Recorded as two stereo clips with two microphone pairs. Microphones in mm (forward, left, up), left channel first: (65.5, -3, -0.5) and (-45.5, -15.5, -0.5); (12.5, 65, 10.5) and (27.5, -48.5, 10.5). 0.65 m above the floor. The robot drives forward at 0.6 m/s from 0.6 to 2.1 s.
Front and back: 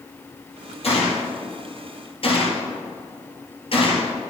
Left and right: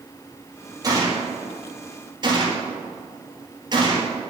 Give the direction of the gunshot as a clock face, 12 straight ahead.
1 o'clock.